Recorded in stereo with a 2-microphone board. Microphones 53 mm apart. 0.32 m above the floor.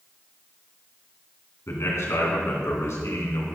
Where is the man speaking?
70° left (ahead or behind), 3 m.